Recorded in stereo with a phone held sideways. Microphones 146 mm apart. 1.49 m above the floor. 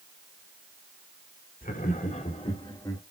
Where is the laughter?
70° left (ahead or behind), 1.8 m; by 3.0 s 20° left (ahead or behind), 2 m.